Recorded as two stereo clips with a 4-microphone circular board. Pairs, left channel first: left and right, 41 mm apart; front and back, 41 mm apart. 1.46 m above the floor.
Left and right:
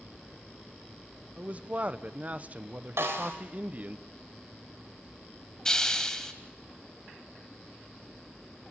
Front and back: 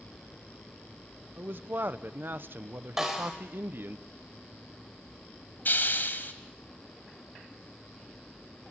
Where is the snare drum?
100° right, 3.5 m.